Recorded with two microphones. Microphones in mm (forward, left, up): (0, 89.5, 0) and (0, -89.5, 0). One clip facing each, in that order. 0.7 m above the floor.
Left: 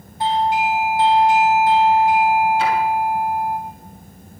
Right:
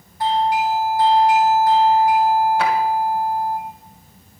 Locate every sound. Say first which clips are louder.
0.2 s a doorbell: even; 25° left (ahead or behind), 2.5 m
2.6 s a drawer: even; 70° right (ahead or behind), 3 m